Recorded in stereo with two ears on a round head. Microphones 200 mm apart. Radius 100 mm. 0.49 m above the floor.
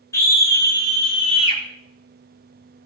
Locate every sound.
0.1 s a scream: 15° left (ahead or behind), 6.5 m; by 1.6 s 25° left (ahead or behind), 7 m